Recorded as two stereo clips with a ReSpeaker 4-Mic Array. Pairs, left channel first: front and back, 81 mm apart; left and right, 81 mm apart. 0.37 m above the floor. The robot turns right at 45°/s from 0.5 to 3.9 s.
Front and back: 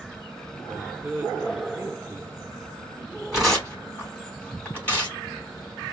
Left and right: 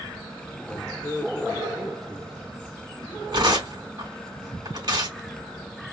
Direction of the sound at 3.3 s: 95° right.